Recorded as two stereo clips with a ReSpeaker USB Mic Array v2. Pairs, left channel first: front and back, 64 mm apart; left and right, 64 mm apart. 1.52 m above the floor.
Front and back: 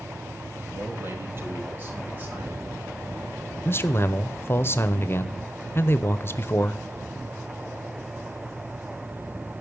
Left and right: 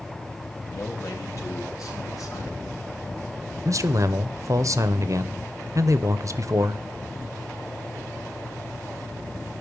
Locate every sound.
0.7 s a man speaking: 130° left, 3.5 m; by 2.6 s 115° left, 3.5 m
3.6 s a man speaking: 55° right, 0.8 m